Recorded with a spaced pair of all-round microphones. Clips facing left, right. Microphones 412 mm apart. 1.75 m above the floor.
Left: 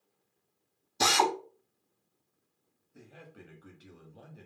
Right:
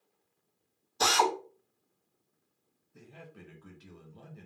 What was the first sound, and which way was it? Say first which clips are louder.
A drill: even; 40° left (ahead or behind).